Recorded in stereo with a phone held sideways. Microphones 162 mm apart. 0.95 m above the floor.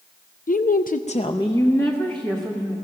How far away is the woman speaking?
About 0.5 m.